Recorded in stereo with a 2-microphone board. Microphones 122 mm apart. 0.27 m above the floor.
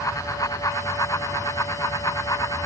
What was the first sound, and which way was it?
Only background noise.